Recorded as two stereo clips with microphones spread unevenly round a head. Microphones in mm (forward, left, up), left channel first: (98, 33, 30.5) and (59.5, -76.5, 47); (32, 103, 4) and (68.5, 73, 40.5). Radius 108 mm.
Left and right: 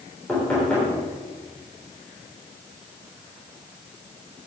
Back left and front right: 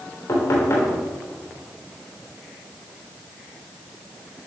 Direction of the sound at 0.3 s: 155° left.